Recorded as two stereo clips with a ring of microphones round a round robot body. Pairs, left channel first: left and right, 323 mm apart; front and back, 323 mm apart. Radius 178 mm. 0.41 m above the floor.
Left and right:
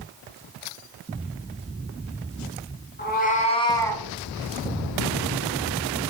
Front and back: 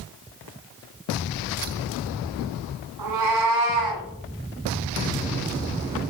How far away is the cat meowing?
About 1.9 m.